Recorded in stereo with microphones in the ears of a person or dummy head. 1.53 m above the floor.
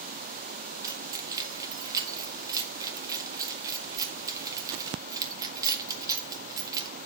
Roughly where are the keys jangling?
Centre.